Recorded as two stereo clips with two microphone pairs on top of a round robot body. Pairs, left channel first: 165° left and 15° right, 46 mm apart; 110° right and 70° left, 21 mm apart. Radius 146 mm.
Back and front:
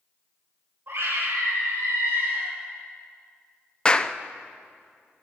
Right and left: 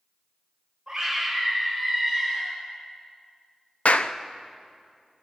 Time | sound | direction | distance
0.9 | a scream | 20° right | 7.5 m
3.9 | a clap | 130° right | 0.9 m